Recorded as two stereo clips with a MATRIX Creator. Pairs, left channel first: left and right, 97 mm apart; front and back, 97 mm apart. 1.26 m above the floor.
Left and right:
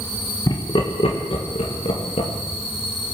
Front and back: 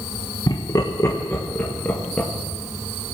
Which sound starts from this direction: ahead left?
Laughter, at 0.5 s.